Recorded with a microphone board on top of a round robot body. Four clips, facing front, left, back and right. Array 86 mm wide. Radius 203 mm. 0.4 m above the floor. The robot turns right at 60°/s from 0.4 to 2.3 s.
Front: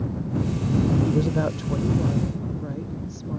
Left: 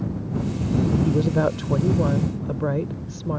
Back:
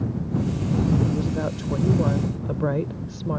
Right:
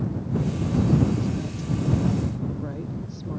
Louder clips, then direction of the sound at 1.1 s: Left 6 dB, front 2 dB; 60° left.